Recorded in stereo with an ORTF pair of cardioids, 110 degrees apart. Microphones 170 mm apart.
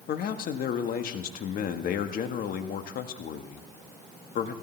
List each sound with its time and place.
0.1 s a man speaking: 60° left, 1.6 m